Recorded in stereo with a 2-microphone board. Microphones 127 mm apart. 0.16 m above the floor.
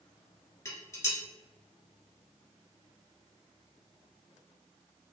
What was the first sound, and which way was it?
Dishes clattering, 25° left (ahead or behind).